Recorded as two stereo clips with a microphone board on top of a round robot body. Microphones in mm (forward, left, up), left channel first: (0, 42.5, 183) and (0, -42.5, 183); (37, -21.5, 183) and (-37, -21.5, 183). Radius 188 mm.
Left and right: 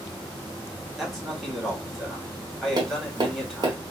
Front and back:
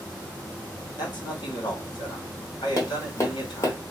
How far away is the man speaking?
About 2.5 m.